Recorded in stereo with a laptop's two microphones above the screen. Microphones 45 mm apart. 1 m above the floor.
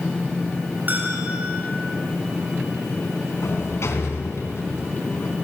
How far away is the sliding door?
About 3 m.